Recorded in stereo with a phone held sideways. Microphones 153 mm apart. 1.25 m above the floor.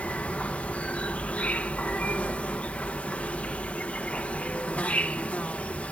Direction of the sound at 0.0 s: 10° left (ahead or behind).